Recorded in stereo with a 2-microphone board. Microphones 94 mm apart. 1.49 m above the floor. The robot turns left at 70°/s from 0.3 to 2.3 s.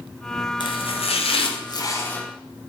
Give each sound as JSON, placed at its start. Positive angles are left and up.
{"t": 0.6, "sound": "chopping", "azimuth_deg": 125, "distance_m": 0.6}